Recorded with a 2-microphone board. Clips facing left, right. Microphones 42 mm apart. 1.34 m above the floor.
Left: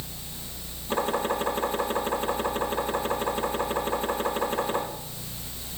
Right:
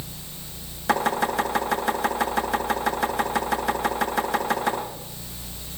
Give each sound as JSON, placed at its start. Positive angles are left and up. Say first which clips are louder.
{"t": 0.9, "sound": "chopping", "louder": "right 4 dB", "side_deg": -80, "distance_m": 8.5}